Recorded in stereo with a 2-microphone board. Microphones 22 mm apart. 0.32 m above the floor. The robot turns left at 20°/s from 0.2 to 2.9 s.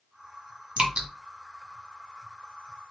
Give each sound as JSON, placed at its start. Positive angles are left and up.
{"t": 0.8, "sound": "dripping", "side_deg": -50, "distance_m": 1.2}